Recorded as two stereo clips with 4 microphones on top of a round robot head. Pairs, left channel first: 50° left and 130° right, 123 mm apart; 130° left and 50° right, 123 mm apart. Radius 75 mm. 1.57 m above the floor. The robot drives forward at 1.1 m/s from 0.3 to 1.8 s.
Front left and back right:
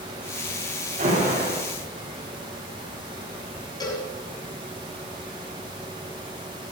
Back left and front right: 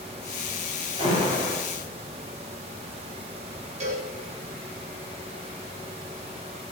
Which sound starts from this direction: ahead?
A cowbell, at 3.8 s.